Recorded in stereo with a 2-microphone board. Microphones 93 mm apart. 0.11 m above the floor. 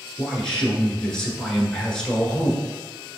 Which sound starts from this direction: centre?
A man speaking, at 0.2 s.